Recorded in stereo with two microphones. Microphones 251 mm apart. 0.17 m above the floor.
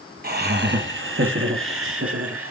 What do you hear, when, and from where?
0.2 s laughter: 40° right (ahead or behind), 1.3 m; by 2.5 s 65° right (ahead or behind), 2 m